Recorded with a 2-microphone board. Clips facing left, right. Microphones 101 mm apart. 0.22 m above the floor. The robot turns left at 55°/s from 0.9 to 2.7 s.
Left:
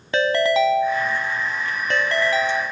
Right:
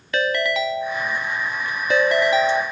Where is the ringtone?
45° left, 0.7 m; by 2.6 s 50° right, 0.7 m.